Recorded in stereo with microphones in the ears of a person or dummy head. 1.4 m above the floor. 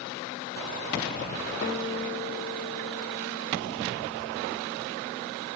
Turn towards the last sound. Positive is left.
turn(degrees=50)  # may be behind; listen again after turning